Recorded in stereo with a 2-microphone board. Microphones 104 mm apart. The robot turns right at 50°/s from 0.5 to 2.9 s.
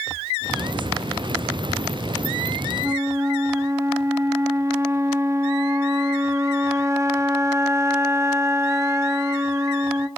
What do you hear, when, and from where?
2.8 s a flute: 25° right (ahead or behind), 0.9 m; by 10.1 s 30° right (ahead or behind), 0.9 m